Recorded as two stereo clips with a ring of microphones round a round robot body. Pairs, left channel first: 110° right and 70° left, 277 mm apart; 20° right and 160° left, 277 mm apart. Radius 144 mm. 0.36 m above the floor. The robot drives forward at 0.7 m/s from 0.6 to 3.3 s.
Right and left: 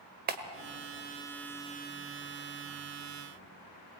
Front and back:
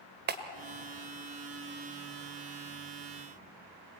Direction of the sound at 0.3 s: 115° left.